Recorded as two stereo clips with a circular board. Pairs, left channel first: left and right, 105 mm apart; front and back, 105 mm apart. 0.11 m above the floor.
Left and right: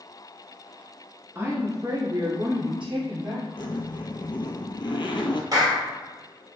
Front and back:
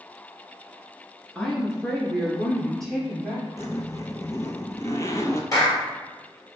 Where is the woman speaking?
65° right, 1.2 m; by 3.5 s 90° right, 2.5 m.